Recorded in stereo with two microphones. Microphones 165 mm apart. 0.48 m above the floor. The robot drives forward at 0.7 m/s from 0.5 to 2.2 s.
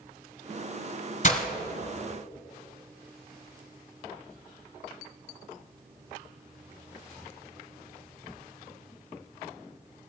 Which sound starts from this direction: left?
Breaking glass, at 1.2 s.